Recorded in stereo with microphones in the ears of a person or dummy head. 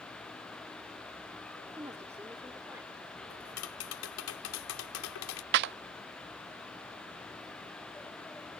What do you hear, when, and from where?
1.8 s a woman speaking: 15° right (ahead or behind); by 3.2 s 10° right (ahead or behind)
3.3 s tapping: 75° left (ahead or behind)
5.5 s a clap: 60° right (ahead or behind)